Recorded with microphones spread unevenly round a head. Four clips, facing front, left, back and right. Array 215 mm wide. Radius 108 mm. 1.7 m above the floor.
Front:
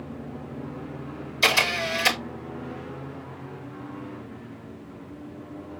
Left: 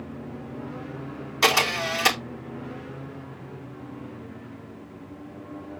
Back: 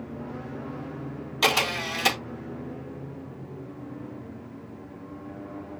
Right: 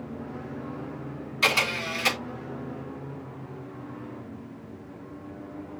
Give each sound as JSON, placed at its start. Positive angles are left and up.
{"t": 1.4, "sound": "a camera shutter", "azimuth_deg": 130, "distance_m": 5.0}